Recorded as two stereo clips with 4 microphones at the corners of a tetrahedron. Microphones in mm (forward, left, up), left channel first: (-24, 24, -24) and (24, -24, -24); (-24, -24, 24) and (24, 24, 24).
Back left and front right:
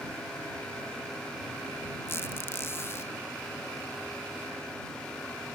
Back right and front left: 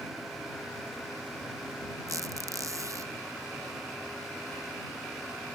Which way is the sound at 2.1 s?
80° left.